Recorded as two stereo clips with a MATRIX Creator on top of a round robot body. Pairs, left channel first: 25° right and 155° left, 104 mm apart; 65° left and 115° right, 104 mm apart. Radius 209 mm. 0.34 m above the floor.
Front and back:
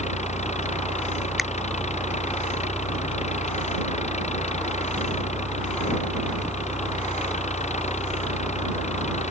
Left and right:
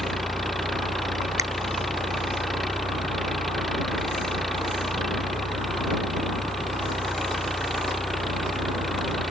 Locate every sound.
0.0 s an engine running: 20° right
1.4 s a finger snap: 115° right